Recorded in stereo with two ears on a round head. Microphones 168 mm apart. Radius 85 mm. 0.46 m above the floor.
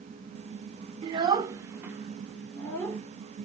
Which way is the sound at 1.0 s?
25° right (ahead or behind).